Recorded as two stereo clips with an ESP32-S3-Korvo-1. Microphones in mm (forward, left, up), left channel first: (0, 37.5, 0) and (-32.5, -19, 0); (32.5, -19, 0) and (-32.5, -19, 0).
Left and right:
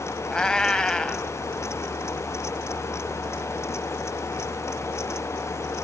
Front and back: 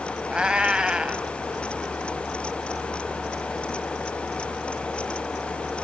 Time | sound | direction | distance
0.3 | a cat meowing | 125° left | 0.6 m